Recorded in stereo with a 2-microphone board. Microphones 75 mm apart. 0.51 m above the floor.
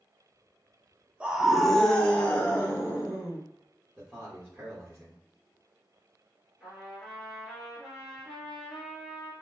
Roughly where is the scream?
Centre.